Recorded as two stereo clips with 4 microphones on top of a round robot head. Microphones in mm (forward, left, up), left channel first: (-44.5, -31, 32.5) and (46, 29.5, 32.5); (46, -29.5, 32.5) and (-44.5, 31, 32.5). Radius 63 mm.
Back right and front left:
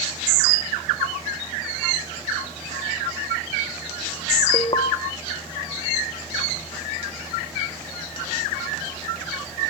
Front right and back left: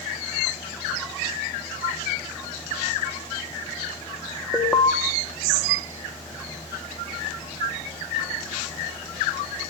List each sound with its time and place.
4.5 s an alarm: 110° right, 1.0 m